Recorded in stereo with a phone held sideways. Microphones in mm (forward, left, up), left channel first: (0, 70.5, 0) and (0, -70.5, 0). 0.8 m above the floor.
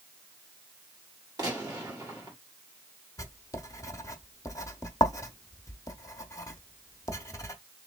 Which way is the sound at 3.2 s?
20° left (ahead or behind).